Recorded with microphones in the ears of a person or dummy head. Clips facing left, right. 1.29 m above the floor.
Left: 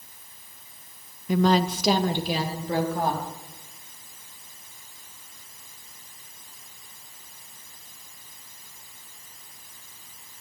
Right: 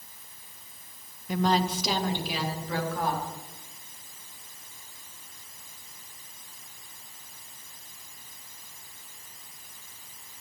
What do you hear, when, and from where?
1.3 s a woman speaking: 70° left (ahead or behind), 0.7 m; by 3.3 s 30° left (ahead or behind), 3 m